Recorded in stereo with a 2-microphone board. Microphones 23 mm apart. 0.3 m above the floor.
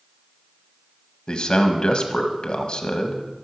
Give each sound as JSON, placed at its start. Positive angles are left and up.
{"t": 1.3, "sound": "a man speaking", "side_deg": 45, "distance_m": 1.4}